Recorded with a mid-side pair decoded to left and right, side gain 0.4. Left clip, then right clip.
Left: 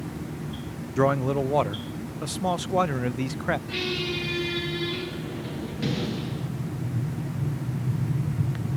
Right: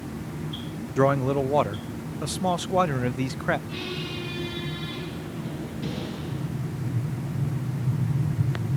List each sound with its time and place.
1.0 s a man speaking: 10° right, 0.6 m
3.7 s a squeak: 70° left, 8.5 m
6.3 s an explosion: 5° right, 3 m